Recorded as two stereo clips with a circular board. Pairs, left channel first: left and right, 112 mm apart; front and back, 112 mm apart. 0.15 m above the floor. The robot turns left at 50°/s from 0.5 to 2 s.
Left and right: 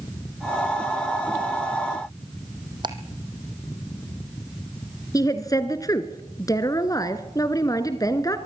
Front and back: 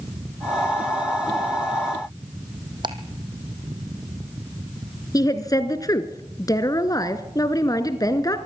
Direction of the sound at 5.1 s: 45° left.